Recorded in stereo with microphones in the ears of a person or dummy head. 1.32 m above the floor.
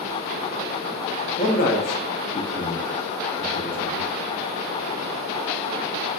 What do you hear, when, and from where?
1.4 s a man speaking: 35° left (ahead or behind), 0.6 m; by 4.1 s 25° left (ahead or behind), 1.5 m